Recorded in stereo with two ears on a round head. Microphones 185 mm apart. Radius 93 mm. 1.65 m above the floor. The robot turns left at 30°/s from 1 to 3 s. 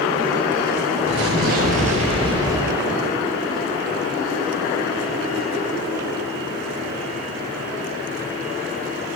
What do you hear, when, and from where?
1.1 s an explosion: 115° right, 5 m; by 3.2 s 175° right, 5 m